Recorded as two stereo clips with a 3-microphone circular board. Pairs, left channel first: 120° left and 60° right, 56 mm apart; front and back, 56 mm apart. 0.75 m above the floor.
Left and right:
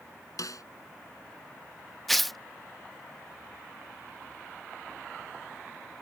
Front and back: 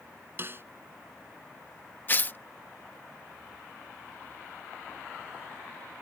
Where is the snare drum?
130° left.